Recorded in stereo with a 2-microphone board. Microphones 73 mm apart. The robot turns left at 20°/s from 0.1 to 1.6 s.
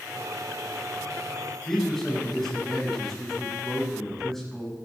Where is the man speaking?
5° left (ahead or behind), 8.5 m.